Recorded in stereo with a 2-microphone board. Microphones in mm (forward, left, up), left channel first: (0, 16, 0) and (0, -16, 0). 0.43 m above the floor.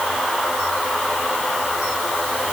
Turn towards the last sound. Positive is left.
No sound to turn to.